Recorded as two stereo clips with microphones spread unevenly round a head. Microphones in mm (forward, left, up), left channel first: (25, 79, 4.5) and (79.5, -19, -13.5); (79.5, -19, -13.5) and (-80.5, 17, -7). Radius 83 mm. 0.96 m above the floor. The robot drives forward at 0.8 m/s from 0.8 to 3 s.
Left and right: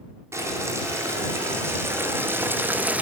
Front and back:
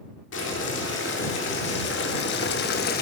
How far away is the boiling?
About 2.5 m.